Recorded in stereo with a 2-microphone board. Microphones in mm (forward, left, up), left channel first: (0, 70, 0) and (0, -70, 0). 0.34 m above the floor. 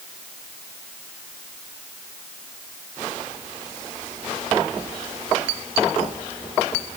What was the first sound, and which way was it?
Only background noise.